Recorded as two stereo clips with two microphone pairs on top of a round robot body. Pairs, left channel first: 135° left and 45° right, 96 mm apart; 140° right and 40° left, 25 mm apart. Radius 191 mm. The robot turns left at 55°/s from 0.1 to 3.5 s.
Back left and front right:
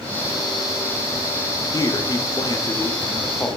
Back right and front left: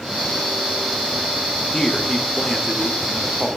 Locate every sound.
1.7 s a man speaking: 175° left, 1.5 m; by 3.5 s 80° left, 1.5 m